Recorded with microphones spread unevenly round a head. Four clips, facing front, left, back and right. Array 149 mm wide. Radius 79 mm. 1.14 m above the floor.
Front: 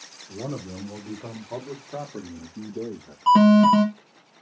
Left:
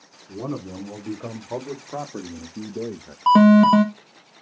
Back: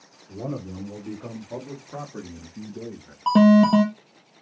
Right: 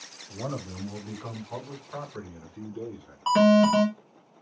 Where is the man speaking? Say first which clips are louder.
Left 5 dB, back 1 dB; 110° left, 3 m; by 3.2 s 70° left, 0.8 m.